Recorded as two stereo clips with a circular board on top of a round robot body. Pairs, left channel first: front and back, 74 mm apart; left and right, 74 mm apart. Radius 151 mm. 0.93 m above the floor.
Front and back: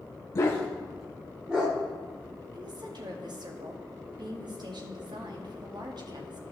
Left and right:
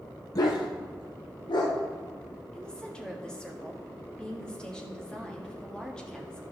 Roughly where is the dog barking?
Ahead left.